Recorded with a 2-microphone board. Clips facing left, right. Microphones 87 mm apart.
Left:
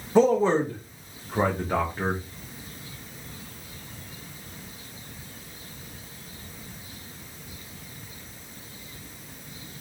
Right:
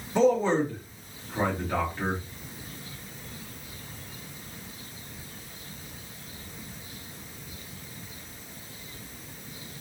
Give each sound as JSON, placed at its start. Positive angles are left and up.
{"t": 0.1, "sound": "a man speaking", "side_deg": 30, "distance_m": 1.0}